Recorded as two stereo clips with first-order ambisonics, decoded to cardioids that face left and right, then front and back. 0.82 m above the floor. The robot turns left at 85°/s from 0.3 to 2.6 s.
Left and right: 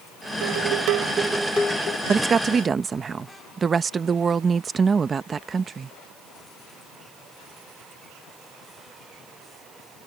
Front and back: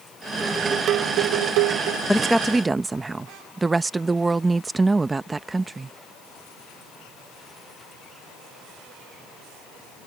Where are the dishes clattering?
85° right; by 2.0 s 140° left.